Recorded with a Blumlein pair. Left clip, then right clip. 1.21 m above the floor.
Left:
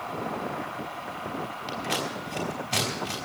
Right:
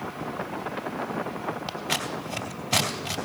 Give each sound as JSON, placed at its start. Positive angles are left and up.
{"t": 1.7, "sound": "scissors", "azimuth_deg": -15, "distance_m": 3.0}